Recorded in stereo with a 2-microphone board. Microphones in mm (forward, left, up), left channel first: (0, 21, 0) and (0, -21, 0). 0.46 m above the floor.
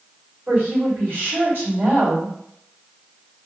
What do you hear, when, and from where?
0.5 s a woman speaking: 50° right (ahead or behind), 1.7 m